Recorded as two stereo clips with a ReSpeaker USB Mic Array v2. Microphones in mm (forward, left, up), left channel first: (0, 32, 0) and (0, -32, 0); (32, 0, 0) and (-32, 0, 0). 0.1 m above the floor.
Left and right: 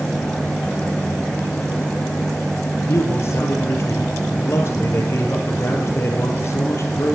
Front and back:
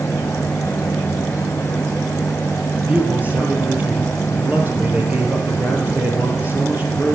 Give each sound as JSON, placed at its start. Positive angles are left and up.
{"t": 2.8, "sound": "a man speaking", "azimuth_deg": 125, "distance_m": 3.0}